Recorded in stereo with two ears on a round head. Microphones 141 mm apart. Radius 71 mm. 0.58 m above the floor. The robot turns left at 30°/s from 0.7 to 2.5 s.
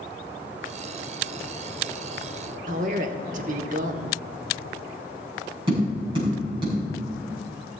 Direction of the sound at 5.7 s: 30° right (ahead or behind).